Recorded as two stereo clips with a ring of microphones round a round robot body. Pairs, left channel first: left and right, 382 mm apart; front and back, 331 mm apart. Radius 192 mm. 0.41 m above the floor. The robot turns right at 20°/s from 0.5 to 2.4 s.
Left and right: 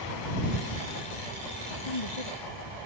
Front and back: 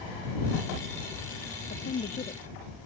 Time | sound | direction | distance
1.7 | a woman speaking | 60° left | ?